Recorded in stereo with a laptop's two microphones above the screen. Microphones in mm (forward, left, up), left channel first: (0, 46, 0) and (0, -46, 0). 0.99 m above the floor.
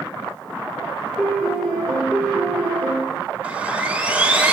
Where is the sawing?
20° right (ahead or behind), 2 m.